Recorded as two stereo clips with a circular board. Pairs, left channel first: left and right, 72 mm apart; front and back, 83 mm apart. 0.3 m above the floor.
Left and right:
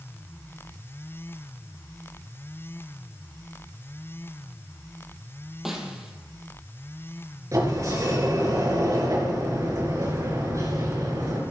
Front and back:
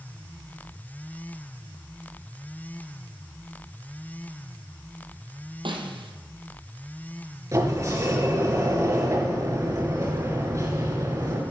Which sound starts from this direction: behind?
A snare drum, at 5.7 s.